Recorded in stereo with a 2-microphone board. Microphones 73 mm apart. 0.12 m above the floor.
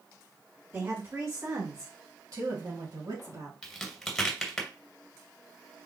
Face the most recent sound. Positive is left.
turn(degrees=5)  # may be behind; listen again after turning